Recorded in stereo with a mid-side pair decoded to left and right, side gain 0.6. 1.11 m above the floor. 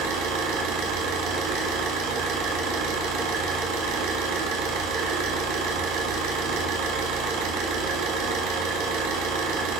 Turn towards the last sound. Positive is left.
turn(degrees=-65)